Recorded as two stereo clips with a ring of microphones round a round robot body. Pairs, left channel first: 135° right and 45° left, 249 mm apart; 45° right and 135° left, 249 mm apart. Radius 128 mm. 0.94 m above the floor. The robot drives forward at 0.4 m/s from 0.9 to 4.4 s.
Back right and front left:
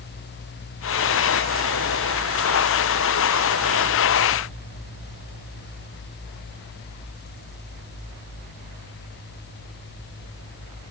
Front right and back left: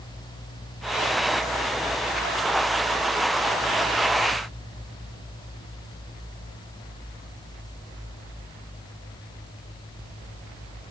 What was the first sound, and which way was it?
Only background noise.